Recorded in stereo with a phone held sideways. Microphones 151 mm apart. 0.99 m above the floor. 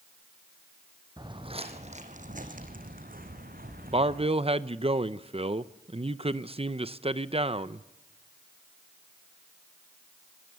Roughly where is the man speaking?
Right.